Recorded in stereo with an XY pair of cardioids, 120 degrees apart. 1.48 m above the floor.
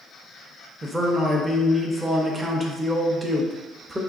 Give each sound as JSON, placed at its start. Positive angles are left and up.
{"t": 0.8, "sound": "a man speaking", "azimuth_deg": -15, "distance_m": 0.7}